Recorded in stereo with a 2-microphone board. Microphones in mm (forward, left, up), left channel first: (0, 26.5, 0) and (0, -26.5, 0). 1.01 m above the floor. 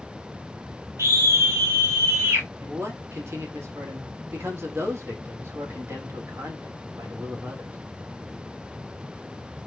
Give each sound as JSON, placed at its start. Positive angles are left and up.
{"t": 1.0, "sound": "a scream", "side_deg": -65, "distance_m": 3.0}
{"t": 2.6, "sound": "a man speaking", "side_deg": -55, "distance_m": 3.5}